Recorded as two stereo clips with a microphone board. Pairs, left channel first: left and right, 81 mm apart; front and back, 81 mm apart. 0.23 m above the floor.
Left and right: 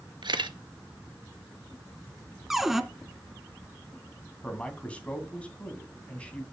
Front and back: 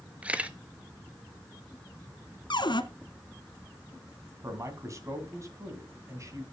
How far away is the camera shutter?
About 0.6 m.